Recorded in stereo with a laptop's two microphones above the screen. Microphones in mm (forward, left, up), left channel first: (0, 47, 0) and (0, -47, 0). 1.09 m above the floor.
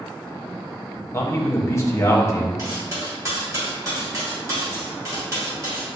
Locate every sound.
1.1 s a man speaking: 30° left (ahead or behind), 0.8 m
2.6 s cutlery clinking: 35° right (ahead or behind), 1.3 m